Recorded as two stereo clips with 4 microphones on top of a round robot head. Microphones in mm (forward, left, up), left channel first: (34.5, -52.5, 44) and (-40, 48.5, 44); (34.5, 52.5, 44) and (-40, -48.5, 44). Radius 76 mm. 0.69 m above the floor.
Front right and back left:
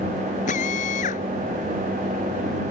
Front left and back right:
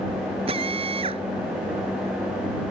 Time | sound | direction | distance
0.5 | a drill | 80° right | ?